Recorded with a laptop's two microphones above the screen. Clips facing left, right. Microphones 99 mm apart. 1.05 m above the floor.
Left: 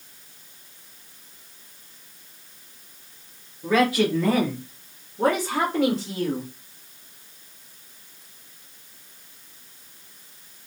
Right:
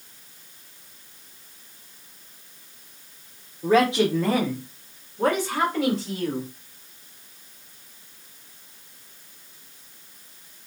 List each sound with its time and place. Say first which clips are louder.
3.6 s a man speaking: right 1 dB; 40° right (ahead or behind), 0.6 m; by 6.5 s 45° left (ahead or behind), 1.6 m